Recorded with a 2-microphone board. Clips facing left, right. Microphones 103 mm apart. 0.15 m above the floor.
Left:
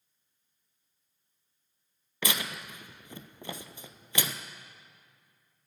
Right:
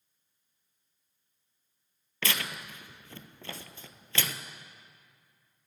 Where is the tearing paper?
15° left (ahead or behind), 0.6 m.